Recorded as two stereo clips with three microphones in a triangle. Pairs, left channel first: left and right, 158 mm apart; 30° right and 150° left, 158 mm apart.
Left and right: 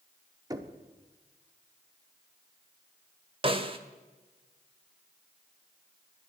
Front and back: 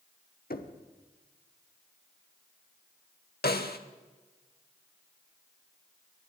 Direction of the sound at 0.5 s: 25° right.